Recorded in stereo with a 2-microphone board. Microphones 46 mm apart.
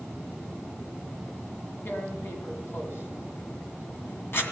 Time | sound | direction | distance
1.9 | tearing paper | 55° left (ahead or behind) | 2 m